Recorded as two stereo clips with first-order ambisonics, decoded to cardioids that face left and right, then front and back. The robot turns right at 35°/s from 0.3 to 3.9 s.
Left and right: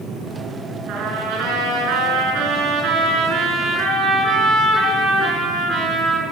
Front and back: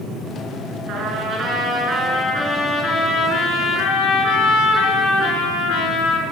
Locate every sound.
0.9 s a trumpet: 130° right, 4.5 m; by 6.2 s 25° right, 4.5 m